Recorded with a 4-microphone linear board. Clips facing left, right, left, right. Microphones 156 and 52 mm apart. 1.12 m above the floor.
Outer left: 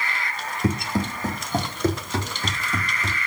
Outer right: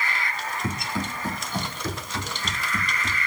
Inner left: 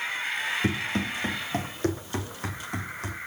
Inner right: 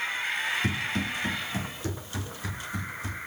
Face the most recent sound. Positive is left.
turn(degrees=65)  # may be behind; listen again after turning